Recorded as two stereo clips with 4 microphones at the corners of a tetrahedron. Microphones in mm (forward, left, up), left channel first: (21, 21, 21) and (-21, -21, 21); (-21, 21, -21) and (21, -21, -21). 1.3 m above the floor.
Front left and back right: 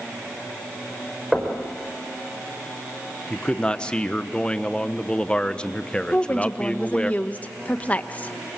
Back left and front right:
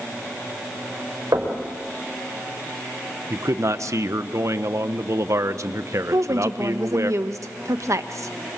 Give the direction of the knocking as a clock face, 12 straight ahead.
1 o'clock.